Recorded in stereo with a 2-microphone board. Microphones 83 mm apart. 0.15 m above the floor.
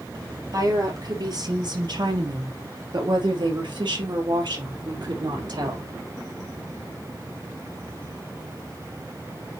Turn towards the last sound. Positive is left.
turn(degrees=-60)  # may be behind; listen again after turning